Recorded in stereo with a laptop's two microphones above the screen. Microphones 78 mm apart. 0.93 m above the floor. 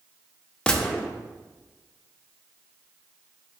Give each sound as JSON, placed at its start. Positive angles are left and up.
{"t": 0.7, "sound": "a gunshot", "side_deg": 10, "distance_m": 0.5}